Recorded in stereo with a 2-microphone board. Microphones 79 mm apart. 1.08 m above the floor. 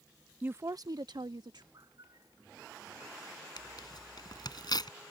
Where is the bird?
55° right (ahead or behind).